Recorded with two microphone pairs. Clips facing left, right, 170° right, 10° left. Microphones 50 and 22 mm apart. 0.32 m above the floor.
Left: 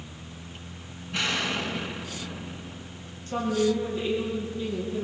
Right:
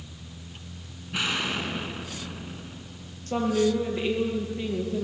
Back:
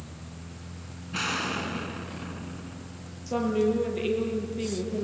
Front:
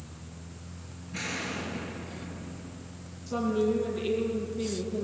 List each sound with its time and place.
1.1 s an explosion: 170° right, 2.5 m
3.3 s a woman speaking: 130° right, 7 m